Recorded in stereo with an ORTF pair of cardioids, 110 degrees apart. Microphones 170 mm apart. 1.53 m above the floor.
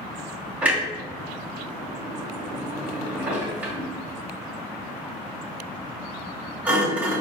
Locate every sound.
0.6 s a clunk: 10° right, 2.0 m